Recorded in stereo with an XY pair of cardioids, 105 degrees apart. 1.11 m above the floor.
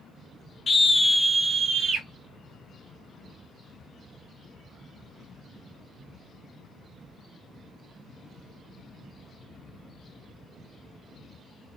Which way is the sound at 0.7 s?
35° left.